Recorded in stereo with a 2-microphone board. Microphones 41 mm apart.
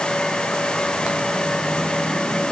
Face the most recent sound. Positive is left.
No sound to turn to.